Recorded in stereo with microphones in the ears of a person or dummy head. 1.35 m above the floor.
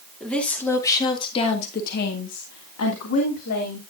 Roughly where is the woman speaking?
Centre.